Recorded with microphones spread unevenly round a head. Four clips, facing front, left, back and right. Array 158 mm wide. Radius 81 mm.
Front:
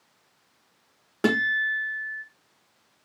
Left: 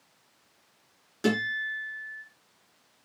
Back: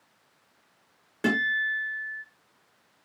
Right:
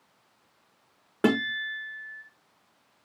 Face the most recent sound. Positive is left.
turn(degrees=-50)